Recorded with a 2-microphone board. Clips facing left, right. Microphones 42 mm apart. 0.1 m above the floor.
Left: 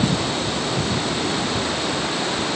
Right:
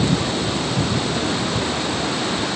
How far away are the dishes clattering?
No dishes clattering in this recording.